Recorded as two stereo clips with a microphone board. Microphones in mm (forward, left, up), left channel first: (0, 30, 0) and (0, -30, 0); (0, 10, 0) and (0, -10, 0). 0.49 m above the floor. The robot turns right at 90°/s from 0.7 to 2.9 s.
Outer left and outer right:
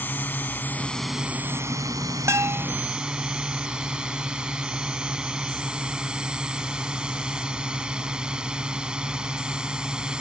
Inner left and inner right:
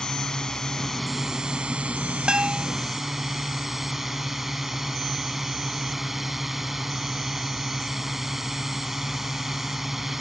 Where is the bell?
70° right; by 2.7 s 35° right.